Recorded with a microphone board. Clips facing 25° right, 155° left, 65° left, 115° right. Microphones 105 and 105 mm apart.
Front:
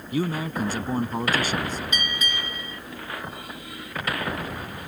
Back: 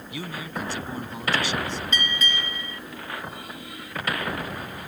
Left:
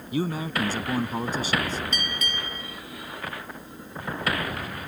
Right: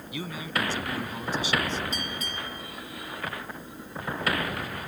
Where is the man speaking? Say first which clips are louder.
Front 8 dB, left 6 dB; 20° left.